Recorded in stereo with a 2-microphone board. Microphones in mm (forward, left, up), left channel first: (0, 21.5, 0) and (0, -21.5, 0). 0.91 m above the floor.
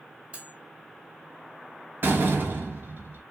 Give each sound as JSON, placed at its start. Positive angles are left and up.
{"t": 0.3, "sound": "cutlery clinking", "side_deg": -25, "distance_m": 1.7}
{"t": 2.0, "sound": "a door slam", "side_deg": -50, "distance_m": 0.8}